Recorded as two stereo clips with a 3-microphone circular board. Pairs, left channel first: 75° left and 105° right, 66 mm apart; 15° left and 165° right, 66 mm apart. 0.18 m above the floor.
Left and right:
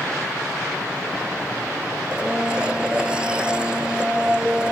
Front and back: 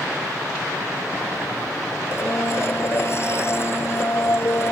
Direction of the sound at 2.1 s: 30° right.